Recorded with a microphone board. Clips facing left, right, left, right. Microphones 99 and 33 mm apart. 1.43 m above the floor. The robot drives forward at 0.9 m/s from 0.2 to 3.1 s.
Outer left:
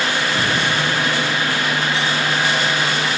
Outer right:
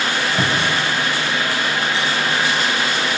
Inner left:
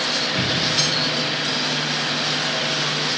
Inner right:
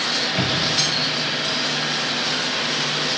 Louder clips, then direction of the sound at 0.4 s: Even, even; 65° right (ahead or behind).